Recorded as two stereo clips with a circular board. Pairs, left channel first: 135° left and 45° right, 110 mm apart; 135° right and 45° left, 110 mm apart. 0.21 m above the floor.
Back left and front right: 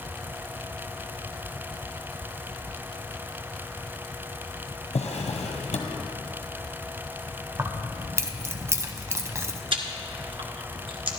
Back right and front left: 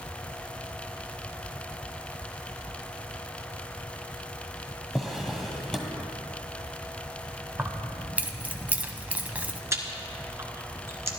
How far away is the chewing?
About 1.3 m.